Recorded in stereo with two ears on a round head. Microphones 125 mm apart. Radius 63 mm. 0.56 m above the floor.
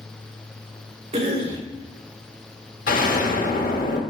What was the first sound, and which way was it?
A cough, 40° right (ahead or behind).